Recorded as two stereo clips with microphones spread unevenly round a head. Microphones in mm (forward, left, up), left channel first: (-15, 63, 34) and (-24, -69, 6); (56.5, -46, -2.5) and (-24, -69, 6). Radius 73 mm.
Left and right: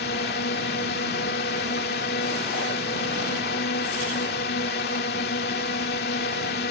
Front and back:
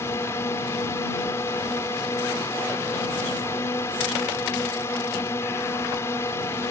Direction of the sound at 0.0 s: 85° left.